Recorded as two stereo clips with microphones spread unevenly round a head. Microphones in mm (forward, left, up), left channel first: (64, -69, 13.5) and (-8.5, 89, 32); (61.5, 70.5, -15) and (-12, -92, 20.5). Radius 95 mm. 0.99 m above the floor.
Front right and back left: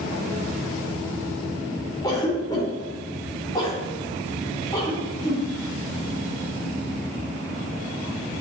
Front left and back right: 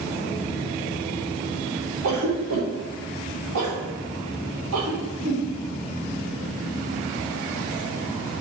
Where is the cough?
140° right, 4 m.